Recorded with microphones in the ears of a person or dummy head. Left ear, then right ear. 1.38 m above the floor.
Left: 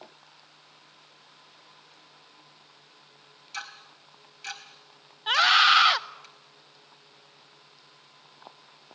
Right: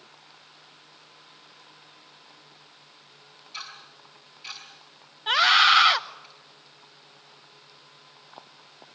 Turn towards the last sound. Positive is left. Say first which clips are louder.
# right 1 dB
turn(degrees=5)  # may be behind; listen again after turning